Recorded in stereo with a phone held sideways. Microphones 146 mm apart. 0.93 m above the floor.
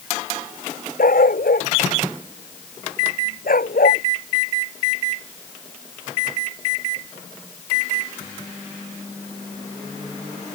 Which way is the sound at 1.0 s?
85° left.